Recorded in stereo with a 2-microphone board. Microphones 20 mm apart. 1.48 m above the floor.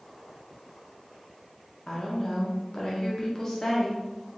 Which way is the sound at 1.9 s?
30° left (ahead or behind).